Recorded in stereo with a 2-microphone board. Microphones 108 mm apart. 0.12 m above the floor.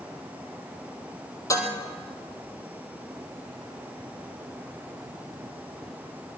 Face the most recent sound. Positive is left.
turn(degrees=30)  # may be behind; listen again after turning